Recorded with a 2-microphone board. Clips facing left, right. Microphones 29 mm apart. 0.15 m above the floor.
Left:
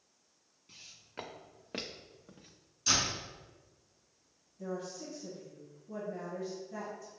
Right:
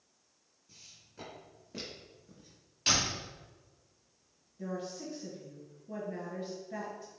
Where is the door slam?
65° right (ahead or behind), 2.0 m.